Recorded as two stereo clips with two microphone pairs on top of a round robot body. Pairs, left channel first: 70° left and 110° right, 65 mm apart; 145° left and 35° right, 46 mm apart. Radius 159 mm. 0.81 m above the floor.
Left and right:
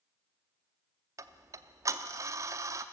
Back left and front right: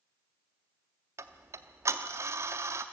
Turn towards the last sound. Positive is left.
turn(degrees=-65)